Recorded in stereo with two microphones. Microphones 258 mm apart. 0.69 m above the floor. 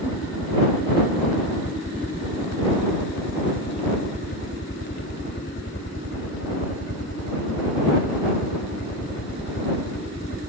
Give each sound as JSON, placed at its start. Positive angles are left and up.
{"t": 0.0, "sound": "a helicopter", "side_deg": 45}